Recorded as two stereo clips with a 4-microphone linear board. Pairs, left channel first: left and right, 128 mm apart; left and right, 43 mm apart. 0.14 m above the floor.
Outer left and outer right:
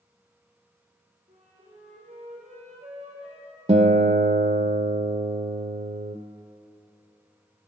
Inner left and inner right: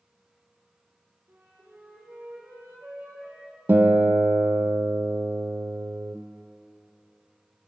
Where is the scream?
I don't hear a scream.